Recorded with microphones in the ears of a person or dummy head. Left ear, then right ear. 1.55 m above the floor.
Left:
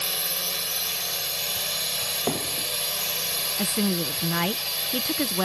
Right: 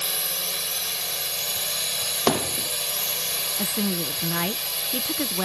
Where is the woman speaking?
Centre (ahead or behind).